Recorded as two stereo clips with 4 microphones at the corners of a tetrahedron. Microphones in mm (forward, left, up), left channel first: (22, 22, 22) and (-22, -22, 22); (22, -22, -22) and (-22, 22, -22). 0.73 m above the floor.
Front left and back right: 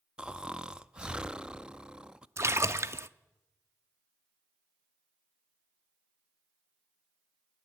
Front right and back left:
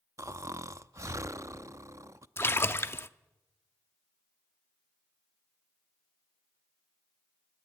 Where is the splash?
95° right, 0.6 m.